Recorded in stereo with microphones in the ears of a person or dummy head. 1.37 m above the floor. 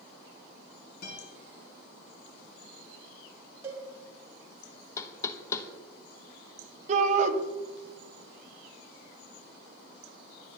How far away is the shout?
About 1.5 m.